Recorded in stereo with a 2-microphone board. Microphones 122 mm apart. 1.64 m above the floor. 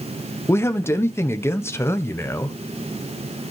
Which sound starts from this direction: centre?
A man speaking, at 0.5 s.